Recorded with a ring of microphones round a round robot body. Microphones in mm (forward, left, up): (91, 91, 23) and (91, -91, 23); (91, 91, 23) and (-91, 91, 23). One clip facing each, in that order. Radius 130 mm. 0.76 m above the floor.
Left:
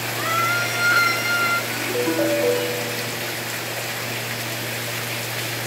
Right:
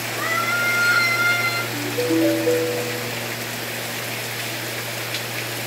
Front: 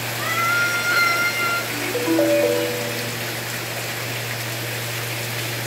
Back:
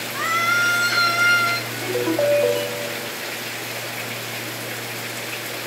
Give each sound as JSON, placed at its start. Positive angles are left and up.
{"t": 0.1, "sound": "a scream", "azimuth_deg": -170, "distance_m": 6.5}
{"t": 1.7, "sound": "a ringtone", "azimuth_deg": 90, "distance_m": 4.0}